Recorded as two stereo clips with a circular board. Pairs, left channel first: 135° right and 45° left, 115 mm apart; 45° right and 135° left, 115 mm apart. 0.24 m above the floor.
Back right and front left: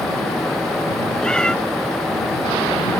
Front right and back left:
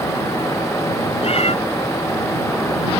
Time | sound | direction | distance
1.2 | a cat meowing | 55° right | ?